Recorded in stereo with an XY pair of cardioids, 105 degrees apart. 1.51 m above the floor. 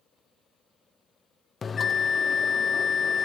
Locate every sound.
1.6 s a bell: 35° left, 0.6 m